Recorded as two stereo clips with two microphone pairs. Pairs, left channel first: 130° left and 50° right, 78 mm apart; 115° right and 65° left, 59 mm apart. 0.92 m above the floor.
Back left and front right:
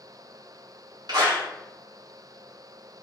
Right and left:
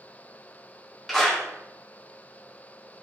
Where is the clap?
30° right, 1.9 m.